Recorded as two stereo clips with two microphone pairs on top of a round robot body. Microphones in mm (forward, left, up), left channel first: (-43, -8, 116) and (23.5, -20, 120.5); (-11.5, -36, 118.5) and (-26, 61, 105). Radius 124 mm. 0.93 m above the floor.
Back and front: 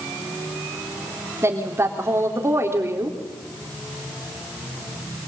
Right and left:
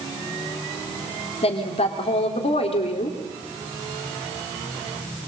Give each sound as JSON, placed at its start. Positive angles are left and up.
{"t": 1.4, "sound": "a woman speaking", "azimuth_deg": -60, "distance_m": 3.5}